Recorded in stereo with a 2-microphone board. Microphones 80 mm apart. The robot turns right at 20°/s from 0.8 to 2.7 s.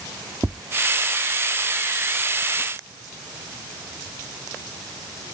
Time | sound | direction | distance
0.4 | tapping | 25° right (ahead or behind) | ?